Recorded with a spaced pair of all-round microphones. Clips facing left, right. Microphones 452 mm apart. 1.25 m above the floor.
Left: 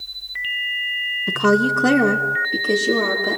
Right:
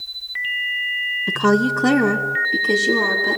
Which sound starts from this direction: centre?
A woman speaking, at 1.3 s.